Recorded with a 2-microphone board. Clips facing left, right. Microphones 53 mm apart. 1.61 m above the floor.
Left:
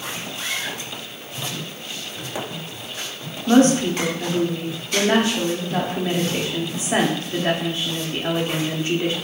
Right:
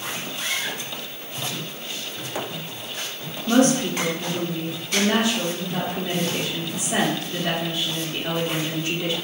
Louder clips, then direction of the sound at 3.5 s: Left 3 dB; 35° left (ahead or behind).